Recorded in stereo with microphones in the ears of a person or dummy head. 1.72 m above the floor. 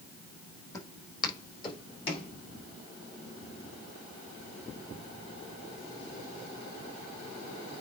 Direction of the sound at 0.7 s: 15° left (ahead or behind).